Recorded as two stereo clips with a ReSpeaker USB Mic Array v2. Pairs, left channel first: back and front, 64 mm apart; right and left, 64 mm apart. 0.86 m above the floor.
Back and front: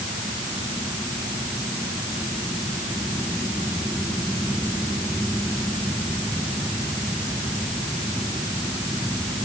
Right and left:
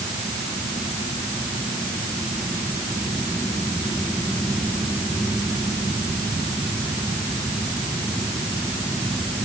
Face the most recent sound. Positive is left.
No sound to turn to.